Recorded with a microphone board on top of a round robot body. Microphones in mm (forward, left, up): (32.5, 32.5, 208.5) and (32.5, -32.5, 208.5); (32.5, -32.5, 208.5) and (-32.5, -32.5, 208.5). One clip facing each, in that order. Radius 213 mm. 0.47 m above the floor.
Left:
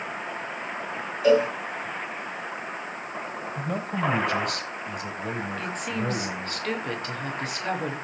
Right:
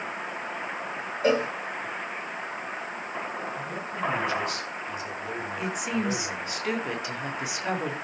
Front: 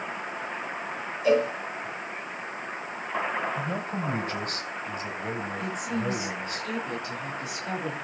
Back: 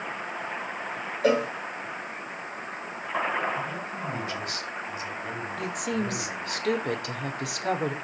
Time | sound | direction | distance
1.2 | a cowbell | 150° right | 5.5 m
3.6 | a man speaking | 50° left | 3.5 m
5.6 | a woman speaking | 170° right | 3 m